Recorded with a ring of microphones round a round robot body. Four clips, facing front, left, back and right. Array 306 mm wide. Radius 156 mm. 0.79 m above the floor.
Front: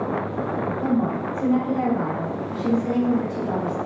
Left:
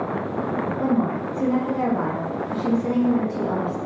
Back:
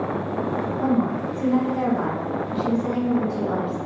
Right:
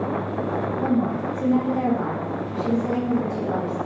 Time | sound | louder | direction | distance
0.8 | a woman speaking | left 1 dB, back 2 dB | 100° left | 1.6 m